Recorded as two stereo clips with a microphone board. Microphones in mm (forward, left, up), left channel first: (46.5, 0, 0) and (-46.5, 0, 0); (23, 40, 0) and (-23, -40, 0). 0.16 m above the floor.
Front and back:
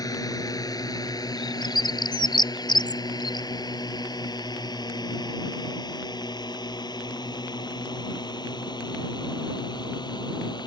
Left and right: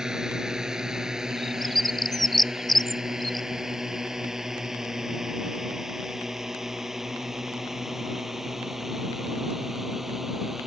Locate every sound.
0.0 s a drone: 40° right; by 10.7 s 35° right
1.4 s a bird: 30° right